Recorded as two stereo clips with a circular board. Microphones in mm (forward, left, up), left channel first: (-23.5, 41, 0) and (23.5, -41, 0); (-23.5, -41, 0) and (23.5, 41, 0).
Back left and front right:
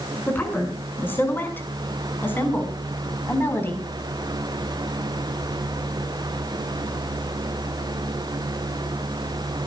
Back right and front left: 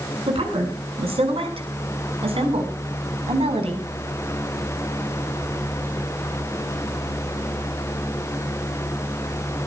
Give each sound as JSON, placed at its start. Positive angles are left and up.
{"t": 0.3, "sound": "a woman speaking", "azimuth_deg": 50, "distance_m": 7.5}